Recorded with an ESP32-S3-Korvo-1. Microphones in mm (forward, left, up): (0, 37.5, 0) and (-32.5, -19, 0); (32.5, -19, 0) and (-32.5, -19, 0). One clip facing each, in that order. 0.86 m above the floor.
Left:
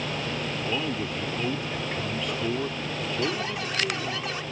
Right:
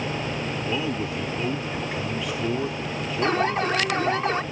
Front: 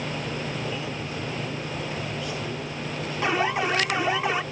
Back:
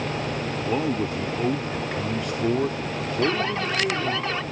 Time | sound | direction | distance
0.6 | a man speaking | 155° left | ?
3.2 | an alarm | 75° right | ?